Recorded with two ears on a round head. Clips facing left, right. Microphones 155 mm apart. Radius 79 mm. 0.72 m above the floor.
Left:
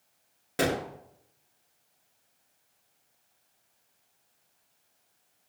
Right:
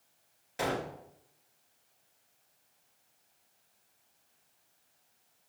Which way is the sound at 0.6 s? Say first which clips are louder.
Left 5 dB; 70° left (ahead or behind).